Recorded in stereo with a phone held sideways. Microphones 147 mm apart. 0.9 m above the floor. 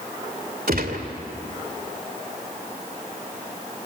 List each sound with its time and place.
0.7 s a gunshot: 85° right, 2.5 m